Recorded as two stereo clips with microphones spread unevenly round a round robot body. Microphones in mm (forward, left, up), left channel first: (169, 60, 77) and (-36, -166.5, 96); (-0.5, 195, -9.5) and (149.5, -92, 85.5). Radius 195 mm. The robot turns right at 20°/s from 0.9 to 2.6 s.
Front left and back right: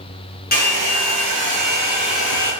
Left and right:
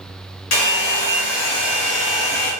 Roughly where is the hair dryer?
Behind left.